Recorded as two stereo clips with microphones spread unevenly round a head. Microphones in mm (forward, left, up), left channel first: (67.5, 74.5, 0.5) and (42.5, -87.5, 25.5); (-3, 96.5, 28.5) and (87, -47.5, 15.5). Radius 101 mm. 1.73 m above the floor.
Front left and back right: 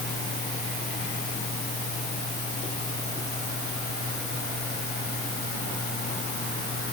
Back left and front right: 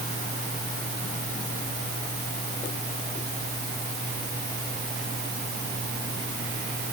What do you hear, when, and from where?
Only background noise.